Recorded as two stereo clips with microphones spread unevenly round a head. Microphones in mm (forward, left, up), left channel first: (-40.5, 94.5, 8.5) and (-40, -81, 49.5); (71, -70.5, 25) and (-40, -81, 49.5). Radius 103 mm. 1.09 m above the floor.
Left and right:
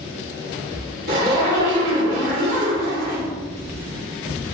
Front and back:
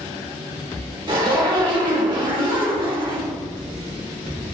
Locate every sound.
1.1 s a zipper: 130° right, 3 m